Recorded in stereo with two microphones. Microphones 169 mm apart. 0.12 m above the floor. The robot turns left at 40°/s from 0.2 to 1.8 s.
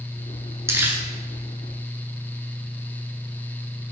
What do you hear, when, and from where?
0.7 s crumpling: 15° right (ahead or behind), 0.7 m; by 1.0 s 10° right (ahead or behind), 0.7 m